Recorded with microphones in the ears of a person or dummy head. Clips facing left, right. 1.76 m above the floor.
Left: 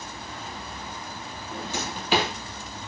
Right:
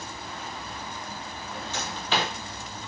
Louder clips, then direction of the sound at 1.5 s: Left 3 dB; 20° left (ahead or behind).